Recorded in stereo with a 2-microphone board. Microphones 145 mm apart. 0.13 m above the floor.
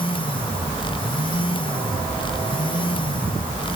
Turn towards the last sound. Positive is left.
No sound to turn to.